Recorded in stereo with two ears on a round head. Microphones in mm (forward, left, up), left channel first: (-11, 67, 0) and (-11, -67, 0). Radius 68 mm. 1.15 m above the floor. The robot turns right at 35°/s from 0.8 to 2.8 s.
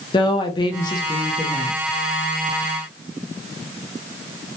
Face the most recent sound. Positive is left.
turn(degrees=-170)